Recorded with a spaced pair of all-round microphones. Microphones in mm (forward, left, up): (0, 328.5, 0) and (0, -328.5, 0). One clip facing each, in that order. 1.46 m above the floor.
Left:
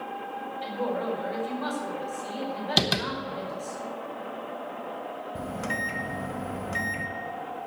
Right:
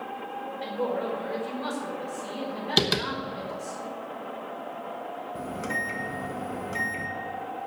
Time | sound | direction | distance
0.6 | a woman speaking | 55° right (ahead or behind) | 5.5 m
2.8 | tapping | 10° left (ahead or behind) | 0.9 m
5.3 | a microwave | 25° left (ahead or behind) | 1.0 m